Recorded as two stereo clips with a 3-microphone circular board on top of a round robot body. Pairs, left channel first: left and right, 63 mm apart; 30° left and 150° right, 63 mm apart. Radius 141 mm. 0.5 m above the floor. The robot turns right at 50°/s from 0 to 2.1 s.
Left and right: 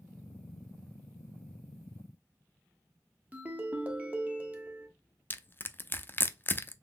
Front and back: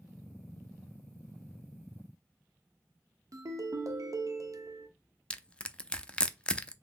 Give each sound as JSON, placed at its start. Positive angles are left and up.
{"t": 3.3, "sound": "a ringtone", "azimuth_deg": -150, "distance_m": 0.9}
{"t": 5.3, "sound": "crushing", "azimuth_deg": 85, "distance_m": 0.5}